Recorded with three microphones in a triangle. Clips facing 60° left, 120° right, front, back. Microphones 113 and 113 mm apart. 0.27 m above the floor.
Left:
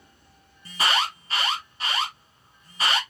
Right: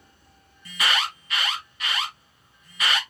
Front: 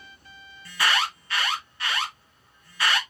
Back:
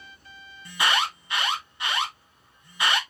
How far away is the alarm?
About 1.2 m.